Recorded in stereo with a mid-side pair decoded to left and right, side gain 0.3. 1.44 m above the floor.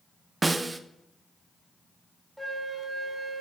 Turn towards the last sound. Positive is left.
turn(degrees=-20)